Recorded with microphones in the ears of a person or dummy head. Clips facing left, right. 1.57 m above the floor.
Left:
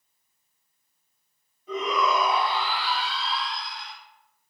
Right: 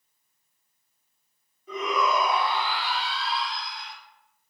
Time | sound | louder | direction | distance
1.7 | a shout | left 1 dB | 30° left (ahead or behind) | 2.5 m